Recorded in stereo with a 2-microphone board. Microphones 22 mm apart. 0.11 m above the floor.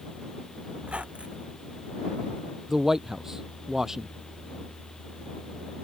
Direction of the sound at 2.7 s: 25° right (ahead or behind).